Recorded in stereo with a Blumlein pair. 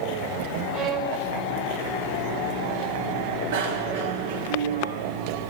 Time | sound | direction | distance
0.7 | a violin | 35° right | 3 m
3.5 | a bicycle bell | 55° right | 2 m